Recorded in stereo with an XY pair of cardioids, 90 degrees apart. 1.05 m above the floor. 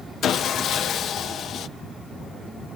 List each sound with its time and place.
0.2 s sawing: 70° left, 0.5 m